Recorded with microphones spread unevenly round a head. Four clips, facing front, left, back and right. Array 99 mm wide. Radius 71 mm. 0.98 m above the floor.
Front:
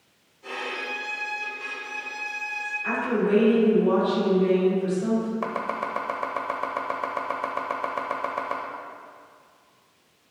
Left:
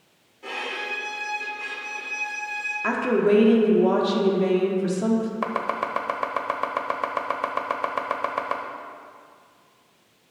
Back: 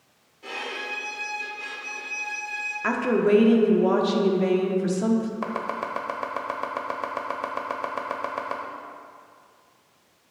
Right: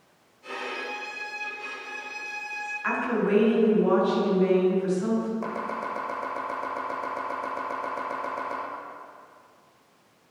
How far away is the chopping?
About 0.7 m.